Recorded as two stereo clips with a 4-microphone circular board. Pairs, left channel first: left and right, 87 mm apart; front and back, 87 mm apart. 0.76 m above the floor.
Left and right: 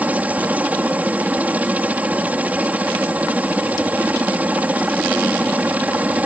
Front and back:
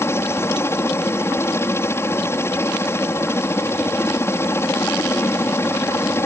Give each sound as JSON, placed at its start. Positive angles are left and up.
{"t": 0.0, "sound": "a helicopter", "azimuth_deg": -30}